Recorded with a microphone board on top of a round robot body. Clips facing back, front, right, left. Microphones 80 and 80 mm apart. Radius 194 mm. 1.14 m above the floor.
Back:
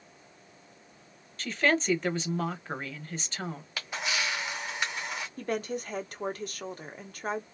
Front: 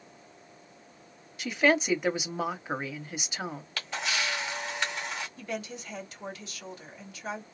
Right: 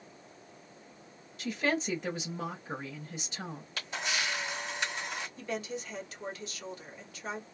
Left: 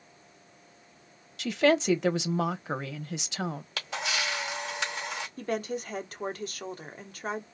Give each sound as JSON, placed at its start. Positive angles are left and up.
{"t": 1.4, "sound": "a woman speaking", "azimuth_deg": 80, "distance_m": 0.7}
{"t": 3.8, "sound": "a camera shutter", "azimuth_deg": 100, "distance_m": 0.6}
{"t": 5.4, "sound": "a woman speaking", "azimuth_deg": 135, "distance_m": 0.9}